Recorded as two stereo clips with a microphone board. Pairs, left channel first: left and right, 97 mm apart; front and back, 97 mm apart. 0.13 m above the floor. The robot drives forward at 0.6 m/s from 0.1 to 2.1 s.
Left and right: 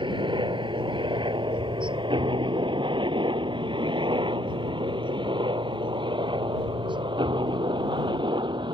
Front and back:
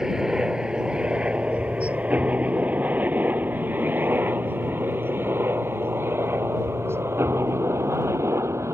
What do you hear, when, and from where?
0.0 s a helicopter: 95° right; by 8.7 s 120° right